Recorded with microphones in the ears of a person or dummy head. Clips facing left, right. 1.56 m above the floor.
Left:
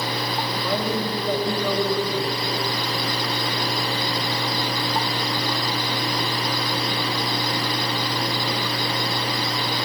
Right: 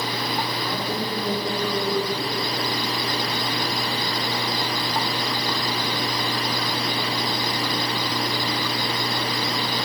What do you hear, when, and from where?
0.6 s a woman speaking: 50° left (ahead or behind), 8 m